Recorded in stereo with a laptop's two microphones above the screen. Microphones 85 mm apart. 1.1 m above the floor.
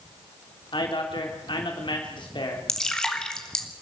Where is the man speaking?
60° left (ahead or behind), 3.5 m.